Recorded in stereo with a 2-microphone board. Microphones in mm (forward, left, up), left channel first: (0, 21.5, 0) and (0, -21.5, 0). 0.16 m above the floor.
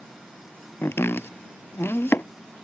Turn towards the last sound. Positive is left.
turn(degrees=75)  # may be behind; listen again after turning